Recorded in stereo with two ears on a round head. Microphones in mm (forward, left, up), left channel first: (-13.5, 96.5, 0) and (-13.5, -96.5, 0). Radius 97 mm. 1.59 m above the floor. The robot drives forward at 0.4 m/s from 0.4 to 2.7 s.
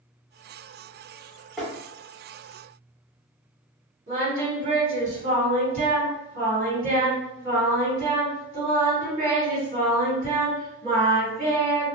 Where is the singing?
35° right (ahead or behind), 1.6 m.